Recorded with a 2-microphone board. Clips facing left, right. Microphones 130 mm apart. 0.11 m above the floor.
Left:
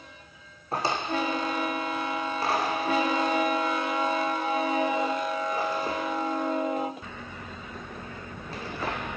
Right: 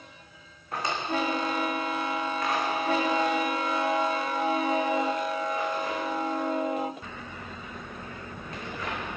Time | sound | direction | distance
0.7 | a drawer | 30° left (ahead or behind) | 2.0 m